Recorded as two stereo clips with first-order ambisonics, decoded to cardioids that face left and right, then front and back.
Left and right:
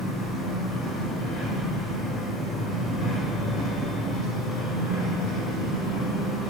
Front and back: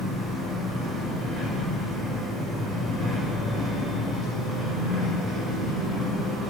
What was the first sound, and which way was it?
An engine running, 110° left.